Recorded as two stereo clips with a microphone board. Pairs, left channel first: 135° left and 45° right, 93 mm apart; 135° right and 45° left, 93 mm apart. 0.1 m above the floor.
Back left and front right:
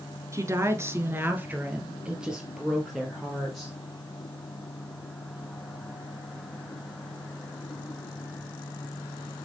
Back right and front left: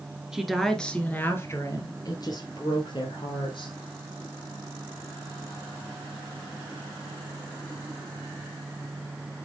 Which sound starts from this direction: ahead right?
A woman speaking, at 0.3 s.